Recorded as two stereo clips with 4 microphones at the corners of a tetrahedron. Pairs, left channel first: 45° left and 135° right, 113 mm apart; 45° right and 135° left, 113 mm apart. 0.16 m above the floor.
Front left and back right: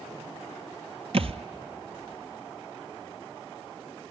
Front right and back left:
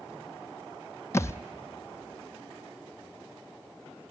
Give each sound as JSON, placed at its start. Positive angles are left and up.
{"t": 1.1, "sound": "a thud", "azimuth_deg": -110, "distance_m": 0.5}